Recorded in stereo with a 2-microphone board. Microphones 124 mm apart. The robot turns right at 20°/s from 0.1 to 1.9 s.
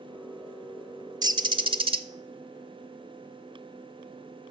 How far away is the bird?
About 0.5 m.